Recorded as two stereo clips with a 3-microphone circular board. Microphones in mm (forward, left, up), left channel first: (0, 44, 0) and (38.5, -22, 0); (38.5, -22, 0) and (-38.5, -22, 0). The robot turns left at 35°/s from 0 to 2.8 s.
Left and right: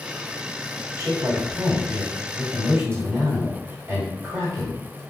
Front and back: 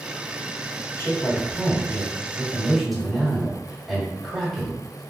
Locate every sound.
1.0 s a man speaking: 30° right, 1.5 m; by 5.0 s 95° right, 1.5 m